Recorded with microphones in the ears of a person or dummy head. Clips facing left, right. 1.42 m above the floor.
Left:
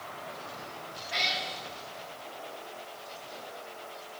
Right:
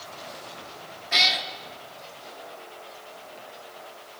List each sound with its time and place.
1.1 s a cat meowing: 70° right (ahead or behind), 1.8 m